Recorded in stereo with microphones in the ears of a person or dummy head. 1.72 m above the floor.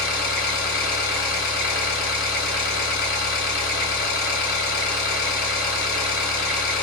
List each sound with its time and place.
0.0 s an engine running: 20° left (ahead or behind), 1.4 m